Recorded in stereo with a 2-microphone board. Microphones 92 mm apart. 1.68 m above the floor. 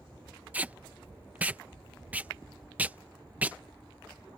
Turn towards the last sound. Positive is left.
turn(degrees=-15)  # may be behind; listen again after turning